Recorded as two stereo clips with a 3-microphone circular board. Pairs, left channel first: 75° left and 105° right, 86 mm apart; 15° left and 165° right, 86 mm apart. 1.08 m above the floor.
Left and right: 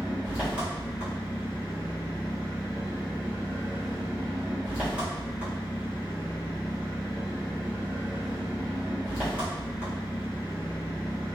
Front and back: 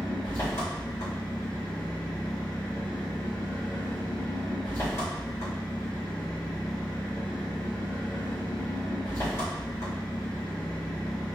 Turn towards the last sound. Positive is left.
turn(degrees=-35)